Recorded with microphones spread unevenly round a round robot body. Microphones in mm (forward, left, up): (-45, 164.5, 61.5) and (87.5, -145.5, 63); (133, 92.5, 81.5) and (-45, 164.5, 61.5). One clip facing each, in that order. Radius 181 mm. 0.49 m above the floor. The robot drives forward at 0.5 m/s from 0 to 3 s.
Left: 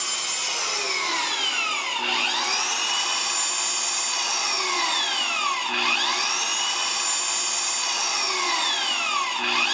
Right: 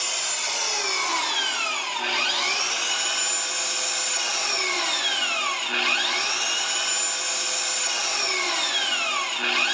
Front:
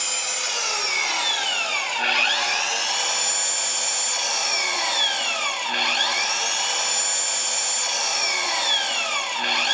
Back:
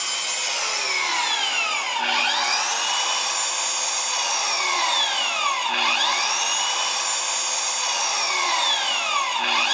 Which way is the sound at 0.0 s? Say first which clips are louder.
Right 2 dB, front 1 dB; 15° left.